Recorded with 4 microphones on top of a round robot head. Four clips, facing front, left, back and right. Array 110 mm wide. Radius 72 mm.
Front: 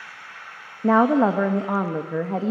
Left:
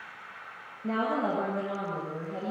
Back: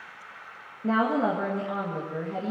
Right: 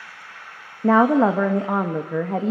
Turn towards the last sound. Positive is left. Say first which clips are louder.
# right 13 dB, front 7 dB
turn(degrees=-55)